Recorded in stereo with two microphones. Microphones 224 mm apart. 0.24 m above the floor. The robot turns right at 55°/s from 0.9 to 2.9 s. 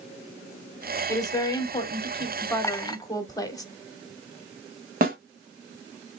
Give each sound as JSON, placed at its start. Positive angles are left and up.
{"t": 1.1, "sound": "a woman speaking", "side_deg": 15, "distance_m": 1.0}
{"t": 2.6, "sound": "a clink", "side_deg": 10, "distance_m": 0.5}
{"t": 5.0, "sound": "a snare drum", "side_deg": -40, "distance_m": 1.2}